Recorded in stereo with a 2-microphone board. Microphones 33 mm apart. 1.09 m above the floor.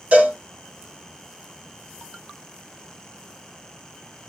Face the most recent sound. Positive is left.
turn(degrees=-50)  # may be behind; listen again after turning